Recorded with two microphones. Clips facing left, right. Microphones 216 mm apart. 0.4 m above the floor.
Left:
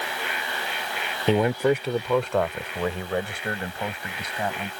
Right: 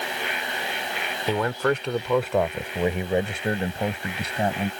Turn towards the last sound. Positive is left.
turn(degrees=-30)  # may be behind; listen again after turning